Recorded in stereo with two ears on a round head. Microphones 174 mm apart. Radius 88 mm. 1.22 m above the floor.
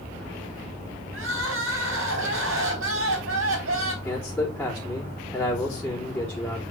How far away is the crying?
About 3.5 m.